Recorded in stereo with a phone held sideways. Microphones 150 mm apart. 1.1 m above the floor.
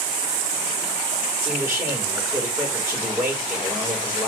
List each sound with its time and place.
1.4 s a man speaking: 20° right (ahead or behind), 4 m